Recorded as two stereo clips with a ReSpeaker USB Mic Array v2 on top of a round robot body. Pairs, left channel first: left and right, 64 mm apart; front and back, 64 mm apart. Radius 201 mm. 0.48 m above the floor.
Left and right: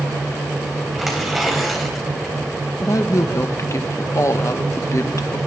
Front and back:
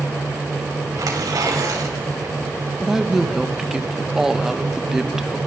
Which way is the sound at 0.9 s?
175° right.